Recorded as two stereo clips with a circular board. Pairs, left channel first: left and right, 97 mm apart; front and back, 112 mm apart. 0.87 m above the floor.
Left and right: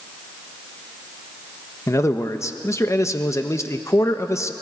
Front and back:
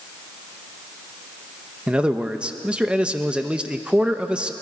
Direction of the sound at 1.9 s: 110° left.